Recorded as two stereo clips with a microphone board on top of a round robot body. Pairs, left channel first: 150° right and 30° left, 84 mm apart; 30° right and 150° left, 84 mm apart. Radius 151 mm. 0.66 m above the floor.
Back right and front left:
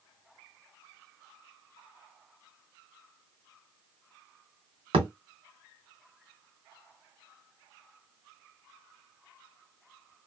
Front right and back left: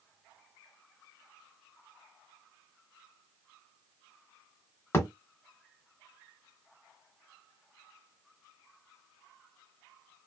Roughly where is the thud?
Ahead left.